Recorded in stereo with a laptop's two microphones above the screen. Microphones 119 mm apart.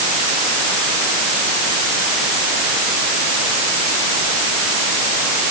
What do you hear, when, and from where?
Only background noise.